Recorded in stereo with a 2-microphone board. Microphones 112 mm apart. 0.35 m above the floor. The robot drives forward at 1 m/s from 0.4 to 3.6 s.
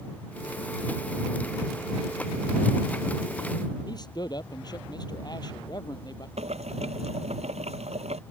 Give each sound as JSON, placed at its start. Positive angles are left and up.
{"t": 3.9, "sound": "a man speaking", "side_deg": 35}
{"t": 6.4, "sound": "boiling", "side_deg": -70}